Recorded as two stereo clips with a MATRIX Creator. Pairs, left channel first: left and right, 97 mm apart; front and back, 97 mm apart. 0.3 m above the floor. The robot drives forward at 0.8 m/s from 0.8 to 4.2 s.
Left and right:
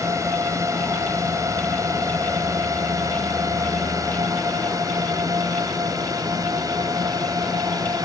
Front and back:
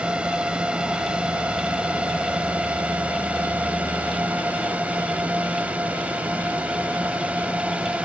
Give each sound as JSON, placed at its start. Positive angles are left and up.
{"t": 0.0, "sound": "a drone", "azimuth_deg": -110}